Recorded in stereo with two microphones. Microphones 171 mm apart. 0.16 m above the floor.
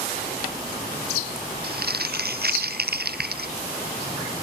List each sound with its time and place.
1.6 s crumpling: 65° right (ahead or behind)